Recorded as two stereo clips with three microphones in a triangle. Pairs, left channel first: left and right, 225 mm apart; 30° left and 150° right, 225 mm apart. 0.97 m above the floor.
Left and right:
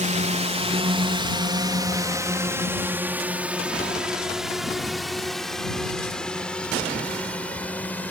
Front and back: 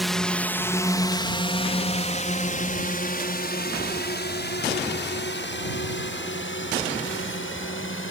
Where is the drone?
60° right; by 8.1 s 5° left.